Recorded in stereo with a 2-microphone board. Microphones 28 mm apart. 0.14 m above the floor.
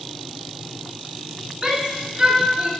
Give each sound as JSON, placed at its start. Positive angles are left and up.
{"t": 1.6, "sound": "a shout", "side_deg": -20, "distance_m": 1.5}